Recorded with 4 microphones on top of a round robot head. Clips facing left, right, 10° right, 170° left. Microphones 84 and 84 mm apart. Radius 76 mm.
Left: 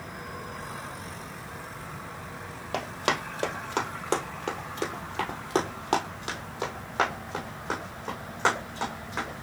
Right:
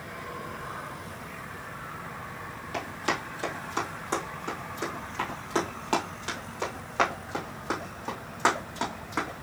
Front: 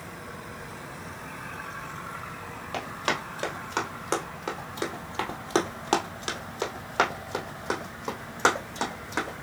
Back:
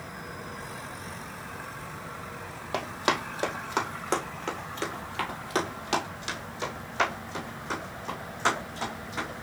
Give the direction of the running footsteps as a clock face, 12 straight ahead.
8 o'clock.